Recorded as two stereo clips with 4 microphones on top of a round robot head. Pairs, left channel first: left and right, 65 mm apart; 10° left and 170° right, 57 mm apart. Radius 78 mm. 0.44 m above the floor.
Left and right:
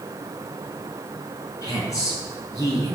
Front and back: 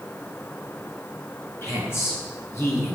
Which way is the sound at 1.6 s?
55° left.